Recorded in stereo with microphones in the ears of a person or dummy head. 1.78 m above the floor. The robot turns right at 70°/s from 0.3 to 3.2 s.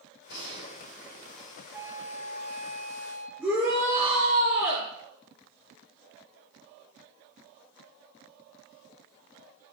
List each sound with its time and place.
0.3 s a gunshot: 105° left, 3 m; by 1.6 s 160° right, 3 m
1.7 s a flute: 160° right, 1.7 m; by 3.3 s 60° right, 1.7 m
3.4 s a shout: 20° right (ahead or behind), 6 m